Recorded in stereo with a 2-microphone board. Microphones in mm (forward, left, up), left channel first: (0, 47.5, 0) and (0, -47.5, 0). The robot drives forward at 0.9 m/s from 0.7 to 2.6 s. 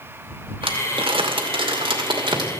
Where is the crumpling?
60° right (ahead or behind), 1.9 m; by 2.5 s 55° right (ahead or behind), 2 m.